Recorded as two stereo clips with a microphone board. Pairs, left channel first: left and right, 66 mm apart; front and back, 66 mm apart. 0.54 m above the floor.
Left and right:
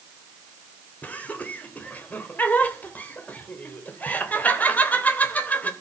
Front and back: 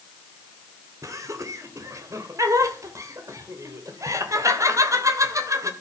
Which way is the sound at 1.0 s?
155° left.